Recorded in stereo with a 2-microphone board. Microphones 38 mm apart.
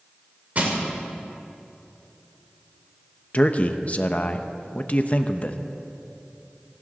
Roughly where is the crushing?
Right.